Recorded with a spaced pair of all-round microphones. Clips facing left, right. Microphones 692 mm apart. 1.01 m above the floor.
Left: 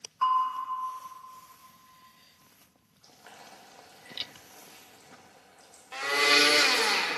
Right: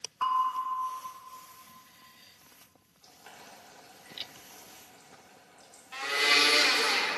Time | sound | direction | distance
0.2 | a bell | 80° right | 1.8 m
3.0 | boiling | 65° right (ahead or behind) | 1.9 m
5.9 | a blender | 80° left | 0.7 m